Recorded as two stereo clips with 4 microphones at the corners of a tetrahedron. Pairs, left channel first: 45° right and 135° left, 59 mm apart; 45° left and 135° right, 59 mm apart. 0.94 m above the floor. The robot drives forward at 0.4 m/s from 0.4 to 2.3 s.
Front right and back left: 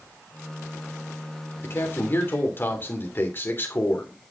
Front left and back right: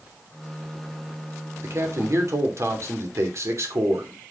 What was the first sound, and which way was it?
A man speaking, 95° right.